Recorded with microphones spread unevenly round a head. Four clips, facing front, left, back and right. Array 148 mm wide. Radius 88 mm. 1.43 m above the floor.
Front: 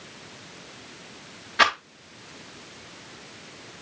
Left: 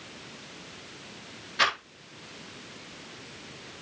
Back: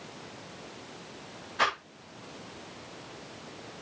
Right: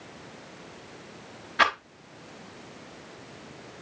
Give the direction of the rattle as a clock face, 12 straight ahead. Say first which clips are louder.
Right 4 dB, front 7 dB; 12 o'clock.